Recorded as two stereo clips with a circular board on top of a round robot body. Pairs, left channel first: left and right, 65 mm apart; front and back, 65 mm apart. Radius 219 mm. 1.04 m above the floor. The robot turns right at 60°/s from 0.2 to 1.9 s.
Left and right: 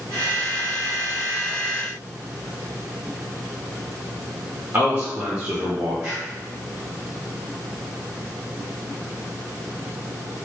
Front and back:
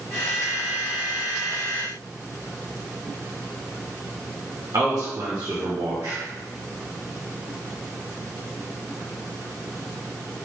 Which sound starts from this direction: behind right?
A man speaking, at 4.7 s.